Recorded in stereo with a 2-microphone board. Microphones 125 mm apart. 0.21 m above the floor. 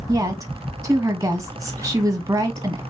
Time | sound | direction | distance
0.1 | a woman speaking | 25° right (ahead or behind) | 1.4 m